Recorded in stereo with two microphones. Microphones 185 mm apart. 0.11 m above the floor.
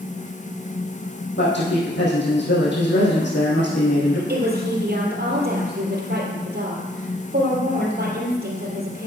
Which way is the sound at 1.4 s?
75° left (ahead or behind).